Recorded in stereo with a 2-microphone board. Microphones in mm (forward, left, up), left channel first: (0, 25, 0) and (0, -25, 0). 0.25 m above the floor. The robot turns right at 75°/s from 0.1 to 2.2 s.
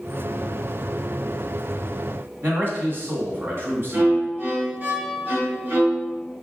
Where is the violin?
45° right (ahead or behind), 1.8 m.